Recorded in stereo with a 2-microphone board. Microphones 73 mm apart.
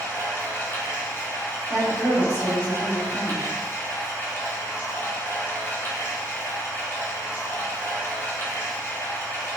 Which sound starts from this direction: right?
A woman speaking, at 1.7 s.